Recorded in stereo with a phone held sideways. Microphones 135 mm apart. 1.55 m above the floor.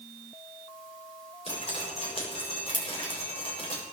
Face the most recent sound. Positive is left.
turn(degrees=45)  # may be behind; listen again after turning